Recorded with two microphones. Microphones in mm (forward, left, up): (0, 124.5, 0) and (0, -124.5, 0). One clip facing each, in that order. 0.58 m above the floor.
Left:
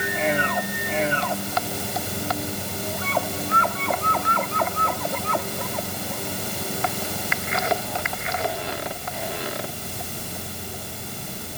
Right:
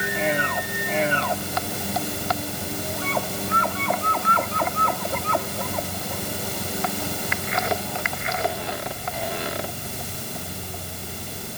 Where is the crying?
No crying in this recording.